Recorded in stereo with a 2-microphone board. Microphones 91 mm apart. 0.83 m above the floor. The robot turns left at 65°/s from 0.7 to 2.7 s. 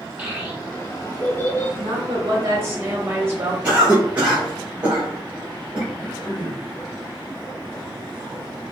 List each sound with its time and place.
0.2 s a child speaking: 20° right (ahead or behind), 1.2 m; by 1.7 s 45° left (ahead or behind), 1.2 m
1.8 s a woman speaking: 90° right, 1.3 m; by 3.5 s 150° right, 1.3 m
3.6 s a cough: 20° right (ahead or behind), 1.5 m
5.9 s throat clearing: 50° left (ahead or behind), 1.4 m